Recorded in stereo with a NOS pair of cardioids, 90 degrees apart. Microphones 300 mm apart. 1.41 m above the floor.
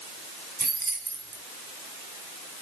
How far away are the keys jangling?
About 5.5 m.